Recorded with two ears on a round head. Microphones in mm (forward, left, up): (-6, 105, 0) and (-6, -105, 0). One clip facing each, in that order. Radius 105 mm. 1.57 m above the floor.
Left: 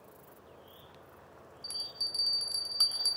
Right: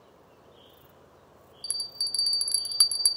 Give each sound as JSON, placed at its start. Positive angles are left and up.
{"t": 1.6, "sound": "a bell", "side_deg": -30, "distance_m": 0.5}